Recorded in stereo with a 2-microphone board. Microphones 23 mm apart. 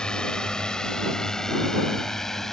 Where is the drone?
40° left (ahead or behind); by 2.5 s 15° left (ahead or behind).